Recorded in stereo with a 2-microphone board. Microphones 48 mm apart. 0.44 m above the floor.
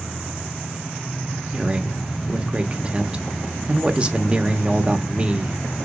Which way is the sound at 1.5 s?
25° right (ahead or behind).